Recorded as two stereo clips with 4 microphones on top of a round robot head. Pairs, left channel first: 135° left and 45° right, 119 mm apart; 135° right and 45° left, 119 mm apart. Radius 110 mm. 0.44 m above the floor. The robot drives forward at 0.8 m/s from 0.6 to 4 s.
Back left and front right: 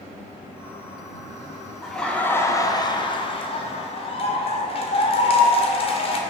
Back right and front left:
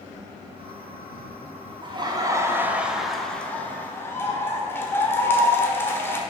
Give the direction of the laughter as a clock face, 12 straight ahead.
11 o'clock.